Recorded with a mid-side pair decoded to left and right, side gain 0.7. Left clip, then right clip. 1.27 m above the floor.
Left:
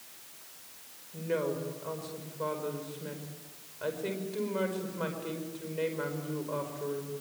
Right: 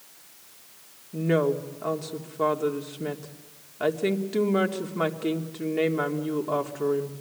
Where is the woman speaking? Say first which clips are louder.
Right 8 dB; 65° right, 3.5 m.